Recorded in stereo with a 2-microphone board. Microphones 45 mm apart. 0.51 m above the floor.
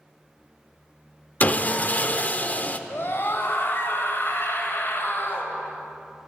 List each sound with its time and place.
1.4 s sawing: 35° left (ahead or behind), 0.5 m
2.9 s a scream: 55° left (ahead or behind), 2 m